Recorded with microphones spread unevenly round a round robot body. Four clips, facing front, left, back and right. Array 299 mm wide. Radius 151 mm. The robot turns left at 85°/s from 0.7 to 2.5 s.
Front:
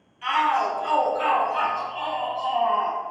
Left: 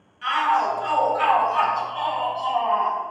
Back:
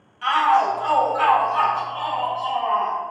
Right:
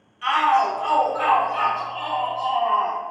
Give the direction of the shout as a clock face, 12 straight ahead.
5 o'clock.